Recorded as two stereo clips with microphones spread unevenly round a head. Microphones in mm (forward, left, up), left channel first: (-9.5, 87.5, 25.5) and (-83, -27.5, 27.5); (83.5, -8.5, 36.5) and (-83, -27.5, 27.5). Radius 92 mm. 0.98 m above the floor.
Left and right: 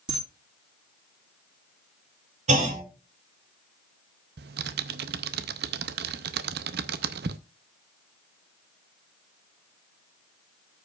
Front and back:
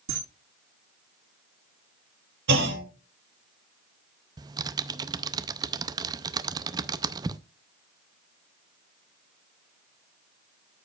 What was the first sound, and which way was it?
A camera shutter, straight behind.